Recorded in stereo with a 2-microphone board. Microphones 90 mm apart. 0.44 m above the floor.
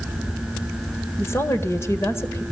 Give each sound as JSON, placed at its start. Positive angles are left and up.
{"t": 1.2, "sound": "a woman speaking", "side_deg": 30, "distance_m": 1.8}